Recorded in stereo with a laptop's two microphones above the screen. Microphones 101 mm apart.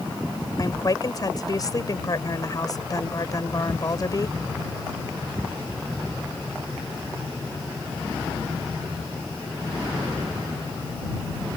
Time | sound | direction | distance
0.6 | a woman speaking | 40° left (ahead or behind) | ?